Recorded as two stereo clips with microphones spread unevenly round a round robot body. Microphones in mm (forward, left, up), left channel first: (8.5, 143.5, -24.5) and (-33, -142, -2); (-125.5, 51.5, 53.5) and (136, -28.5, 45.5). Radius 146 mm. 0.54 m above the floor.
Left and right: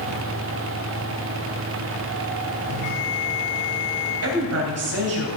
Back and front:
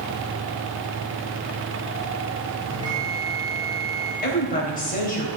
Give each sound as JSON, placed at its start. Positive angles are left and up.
{"t": 2.7, "sound": "a bell", "azimuth_deg": 55, "distance_m": 4.5}
{"t": 4.2, "sound": "a woman speaking", "azimuth_deg": -135, "distance_m": 3.5}